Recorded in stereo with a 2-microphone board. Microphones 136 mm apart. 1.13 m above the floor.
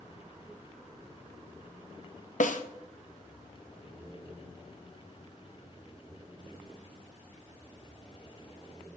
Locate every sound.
2.4 s a snare drum: 70° left (ahead or behind), 0.6 m